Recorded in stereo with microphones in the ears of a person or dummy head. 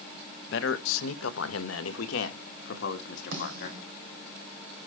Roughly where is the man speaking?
Left.